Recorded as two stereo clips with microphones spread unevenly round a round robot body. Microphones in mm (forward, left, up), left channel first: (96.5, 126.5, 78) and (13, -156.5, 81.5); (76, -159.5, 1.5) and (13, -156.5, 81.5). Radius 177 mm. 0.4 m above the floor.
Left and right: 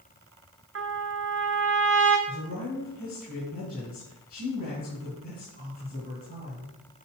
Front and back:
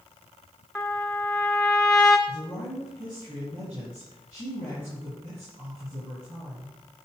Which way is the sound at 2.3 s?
135° left.